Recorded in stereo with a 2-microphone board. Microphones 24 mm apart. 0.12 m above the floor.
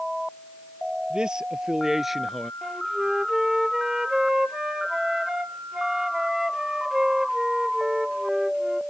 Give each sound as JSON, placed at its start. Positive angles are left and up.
{"t": 1.1, "sound": "a man speaking", "side_deg": -35}
{"t": 2.6, "sound": "a flute", "side_deg": -20}